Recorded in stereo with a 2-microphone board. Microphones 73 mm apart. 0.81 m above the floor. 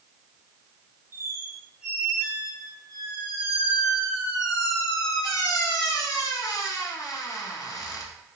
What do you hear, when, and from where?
1.1 s a squeak: 50° left (ahead or behind), 1.0 m